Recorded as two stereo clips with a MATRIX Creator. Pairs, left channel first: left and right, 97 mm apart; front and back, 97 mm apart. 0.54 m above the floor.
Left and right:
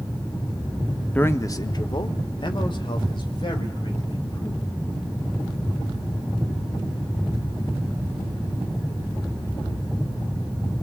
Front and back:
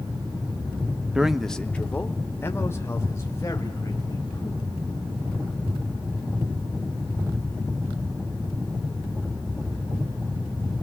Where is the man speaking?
120° left, 0.6 m; by 4.7 s 60° left, 3 m.